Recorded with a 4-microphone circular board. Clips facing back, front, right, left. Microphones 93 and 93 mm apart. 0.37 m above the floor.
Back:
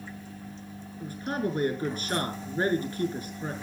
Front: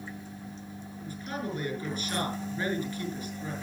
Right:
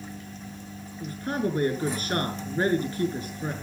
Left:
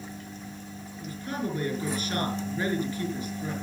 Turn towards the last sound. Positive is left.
turn(degrees=-140)